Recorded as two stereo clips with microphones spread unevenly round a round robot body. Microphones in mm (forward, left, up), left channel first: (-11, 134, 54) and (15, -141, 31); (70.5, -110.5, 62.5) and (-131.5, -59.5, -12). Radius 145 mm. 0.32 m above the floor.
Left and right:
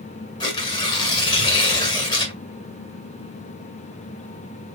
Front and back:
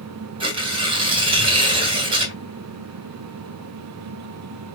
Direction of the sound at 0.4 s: 170° left.